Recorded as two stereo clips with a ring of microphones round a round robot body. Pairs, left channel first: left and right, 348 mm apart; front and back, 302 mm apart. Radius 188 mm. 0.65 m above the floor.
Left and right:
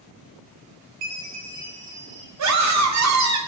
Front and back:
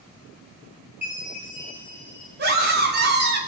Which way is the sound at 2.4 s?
125° right.